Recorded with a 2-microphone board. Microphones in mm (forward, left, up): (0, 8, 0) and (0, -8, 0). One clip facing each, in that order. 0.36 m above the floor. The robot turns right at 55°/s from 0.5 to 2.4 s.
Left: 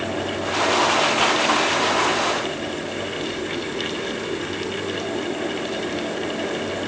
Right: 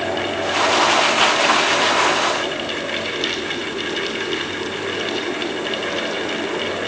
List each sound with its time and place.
Only background noise.